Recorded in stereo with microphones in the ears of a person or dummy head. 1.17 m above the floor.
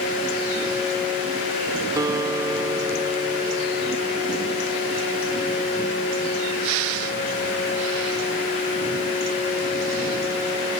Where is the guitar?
20° right (ahead or behind), 1.4 m.